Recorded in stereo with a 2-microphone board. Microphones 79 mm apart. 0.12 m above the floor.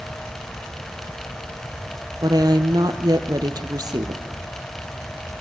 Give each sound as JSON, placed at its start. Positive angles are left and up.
{"t": 2.2, "sound": "a woman speaking", "side_deg": -55, "distance_m": 3.0}